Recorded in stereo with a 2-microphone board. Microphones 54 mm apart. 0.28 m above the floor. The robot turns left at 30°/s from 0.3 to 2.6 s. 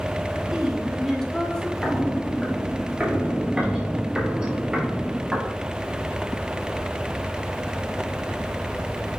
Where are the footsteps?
20° left (ahead or behind), 3 m; by 5.4 s 10° right (ahead or behind), 5 m.